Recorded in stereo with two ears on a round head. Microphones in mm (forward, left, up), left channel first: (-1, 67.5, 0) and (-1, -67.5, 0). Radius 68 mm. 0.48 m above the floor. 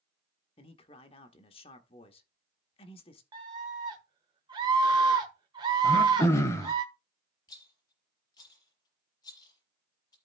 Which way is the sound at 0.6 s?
35° left (ahead or behind).